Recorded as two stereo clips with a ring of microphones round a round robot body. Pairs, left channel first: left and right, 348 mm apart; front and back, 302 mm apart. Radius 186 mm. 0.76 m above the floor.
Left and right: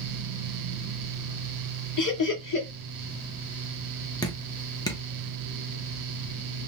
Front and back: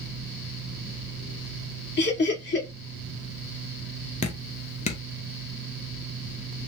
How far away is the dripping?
About 1.0 m.